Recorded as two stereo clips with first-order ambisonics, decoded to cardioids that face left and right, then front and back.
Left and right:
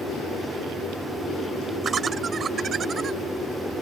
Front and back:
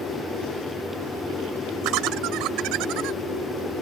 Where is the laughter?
155° right.